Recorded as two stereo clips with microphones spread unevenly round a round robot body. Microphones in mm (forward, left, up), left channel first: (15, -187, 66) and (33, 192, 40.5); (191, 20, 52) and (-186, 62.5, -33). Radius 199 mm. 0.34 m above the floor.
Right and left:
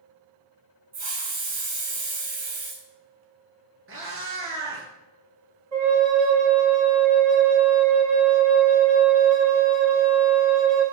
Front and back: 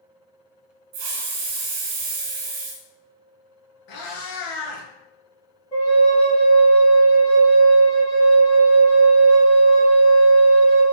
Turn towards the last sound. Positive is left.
turn(degrees=70)